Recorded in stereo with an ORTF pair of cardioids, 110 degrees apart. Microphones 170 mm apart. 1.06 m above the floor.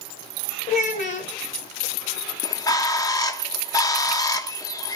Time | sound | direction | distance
0.7 | a child speaking | 55° left | 0.9 m
2.4 | a bird | 20° left | 0.6 m